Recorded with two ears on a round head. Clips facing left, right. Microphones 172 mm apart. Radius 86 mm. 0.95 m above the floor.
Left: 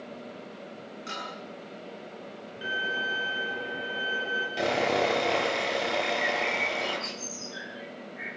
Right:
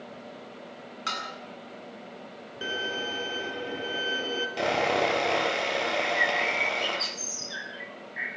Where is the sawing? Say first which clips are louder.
Even; centre (ahead or behind), 5.5 m.